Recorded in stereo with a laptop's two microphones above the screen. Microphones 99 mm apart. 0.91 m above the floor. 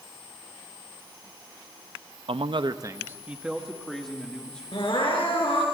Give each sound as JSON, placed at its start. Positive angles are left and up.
{"t": 2.3, "sound": "a man speaking", "side_deg": -65, "distance_m": 0.6}
{"t": 4.7, "sound": "crying", "side_deg": 60, "distance_m": 4.0}